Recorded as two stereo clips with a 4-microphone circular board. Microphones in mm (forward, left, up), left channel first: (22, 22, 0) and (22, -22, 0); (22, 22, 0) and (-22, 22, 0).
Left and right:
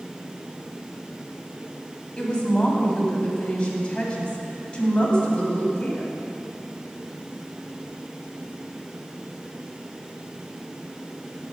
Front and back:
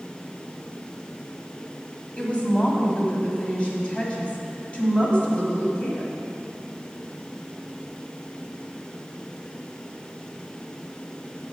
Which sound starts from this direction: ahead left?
A woman speaking, at 2.2 s.